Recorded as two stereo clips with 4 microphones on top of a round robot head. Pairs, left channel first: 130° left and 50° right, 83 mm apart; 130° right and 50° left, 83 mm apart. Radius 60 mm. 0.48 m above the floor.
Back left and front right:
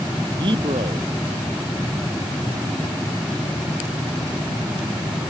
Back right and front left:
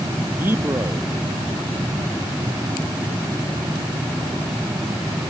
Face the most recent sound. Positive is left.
turn(degrees=-15)